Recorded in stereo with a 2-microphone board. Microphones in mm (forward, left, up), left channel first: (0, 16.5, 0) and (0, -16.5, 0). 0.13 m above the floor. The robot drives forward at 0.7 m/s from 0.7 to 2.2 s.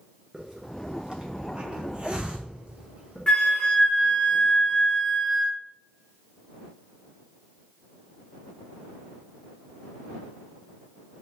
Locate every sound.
0.3 s a hiss: 20° right (ahead or behind), 1.2 m; by 3.3 s 30° right (ahead or behind), 0.8 m
3.3 s a flute: 25° left (ahead or behind), 1.0 m